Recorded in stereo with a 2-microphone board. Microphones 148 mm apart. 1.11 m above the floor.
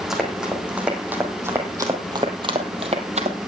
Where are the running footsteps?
Centre (ahead or behind), 4 m; by 3.5 s 55° right (ahead or behind), 2.5 m.